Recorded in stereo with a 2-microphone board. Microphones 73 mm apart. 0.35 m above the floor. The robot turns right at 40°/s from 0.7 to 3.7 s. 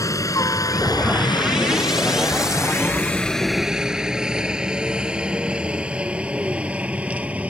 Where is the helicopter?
50° left (ahead or behind); by 7.5 s 20° right (ahead or behind).